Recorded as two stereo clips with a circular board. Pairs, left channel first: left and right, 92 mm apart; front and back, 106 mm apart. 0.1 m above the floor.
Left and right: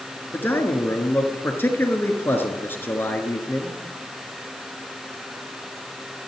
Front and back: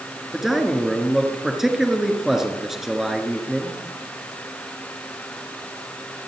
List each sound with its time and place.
0.3 s a man speaking: 100° left, 1.4 m